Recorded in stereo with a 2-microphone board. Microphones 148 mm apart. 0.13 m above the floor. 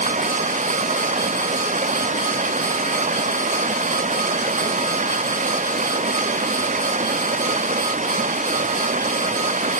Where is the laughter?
No laughter in this recording.